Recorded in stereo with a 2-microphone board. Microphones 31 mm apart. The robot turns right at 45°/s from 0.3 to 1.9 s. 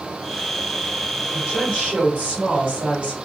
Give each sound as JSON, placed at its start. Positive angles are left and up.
{"t": 1.3, "sound": "a woman speaking", "side_deg": -10, "distance_m": 1.8}